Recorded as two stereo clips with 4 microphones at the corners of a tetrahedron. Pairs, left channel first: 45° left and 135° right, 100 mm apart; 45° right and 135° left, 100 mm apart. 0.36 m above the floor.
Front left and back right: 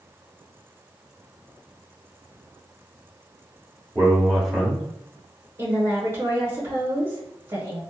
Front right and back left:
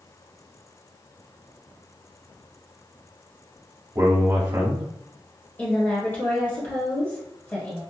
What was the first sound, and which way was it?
A man speaking, 135° left.